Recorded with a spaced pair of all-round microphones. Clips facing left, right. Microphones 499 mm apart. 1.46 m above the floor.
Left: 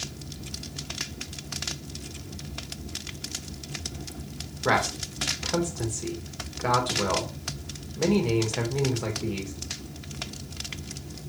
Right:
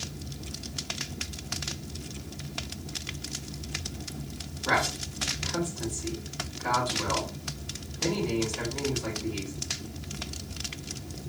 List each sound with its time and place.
4.7 s a man speaking: 80° left, 1.7 m